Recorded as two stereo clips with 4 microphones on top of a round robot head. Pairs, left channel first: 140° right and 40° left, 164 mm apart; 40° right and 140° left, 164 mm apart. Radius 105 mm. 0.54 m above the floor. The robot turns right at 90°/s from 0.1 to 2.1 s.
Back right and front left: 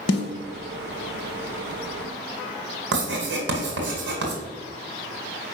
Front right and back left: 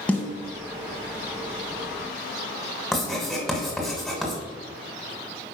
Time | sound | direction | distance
0.1 | a snare drum | 125° right | 1.2 m
2.9 | writing | 45° left | 1.9 m